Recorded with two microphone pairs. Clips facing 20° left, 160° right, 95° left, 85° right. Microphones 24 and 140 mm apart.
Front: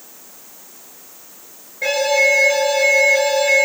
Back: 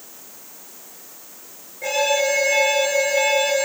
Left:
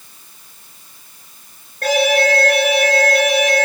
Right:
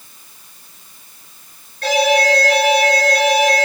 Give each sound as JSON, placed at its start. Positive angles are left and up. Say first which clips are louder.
{"t": 1.8, "sound": "an alarm", "louder": "front 4 dB, even", "azimuth_deg": 50, "distance_m": 9.0}